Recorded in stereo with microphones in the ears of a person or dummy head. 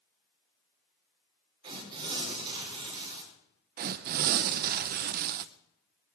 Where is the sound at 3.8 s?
45° right (ahead or behind), 0.6 m.